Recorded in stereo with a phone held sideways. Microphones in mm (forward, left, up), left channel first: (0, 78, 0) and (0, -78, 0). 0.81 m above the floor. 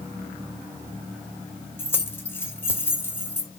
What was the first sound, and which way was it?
Keys jangling, 15° left (ahead or behind).